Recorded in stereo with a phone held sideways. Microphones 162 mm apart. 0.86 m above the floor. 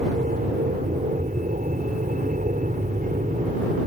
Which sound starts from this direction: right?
An aircraft, at 0.0 s.